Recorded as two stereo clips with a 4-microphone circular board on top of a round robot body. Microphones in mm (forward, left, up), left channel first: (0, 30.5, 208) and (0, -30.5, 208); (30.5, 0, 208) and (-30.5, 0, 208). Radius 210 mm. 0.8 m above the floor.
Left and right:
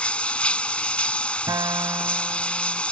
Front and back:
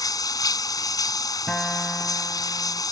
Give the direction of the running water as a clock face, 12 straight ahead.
11 o'clock.